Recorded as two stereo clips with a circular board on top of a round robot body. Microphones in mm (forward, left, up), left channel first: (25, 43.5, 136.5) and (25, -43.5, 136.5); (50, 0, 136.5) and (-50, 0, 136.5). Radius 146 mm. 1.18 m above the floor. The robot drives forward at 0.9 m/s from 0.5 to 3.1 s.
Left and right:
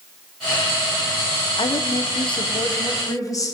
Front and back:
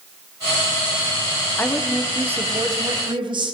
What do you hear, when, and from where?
1.6 s a woman speaking: 70° left, 1.0 m; by 3.5 s 140° left, 1.4 m